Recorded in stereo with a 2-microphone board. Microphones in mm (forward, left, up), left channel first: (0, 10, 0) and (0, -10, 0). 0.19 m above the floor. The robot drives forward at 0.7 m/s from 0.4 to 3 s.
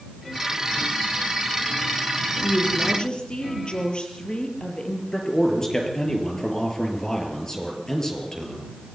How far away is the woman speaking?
About 4 m.